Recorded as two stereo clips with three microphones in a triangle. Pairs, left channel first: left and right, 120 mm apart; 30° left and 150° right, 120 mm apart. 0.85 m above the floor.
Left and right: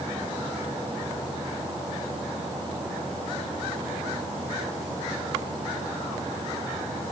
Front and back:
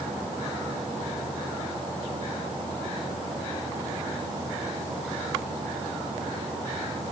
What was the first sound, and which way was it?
Only background noise.